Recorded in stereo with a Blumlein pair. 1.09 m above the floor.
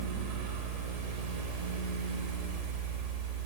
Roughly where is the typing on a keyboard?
I don't hear typing on a keyboard.